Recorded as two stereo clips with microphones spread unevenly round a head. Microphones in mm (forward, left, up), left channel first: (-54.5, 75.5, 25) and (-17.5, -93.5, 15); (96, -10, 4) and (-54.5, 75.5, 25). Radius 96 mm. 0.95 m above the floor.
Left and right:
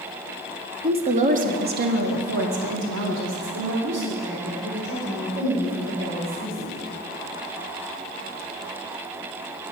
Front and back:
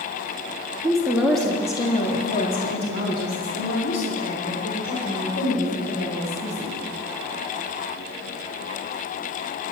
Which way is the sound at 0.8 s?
135° right.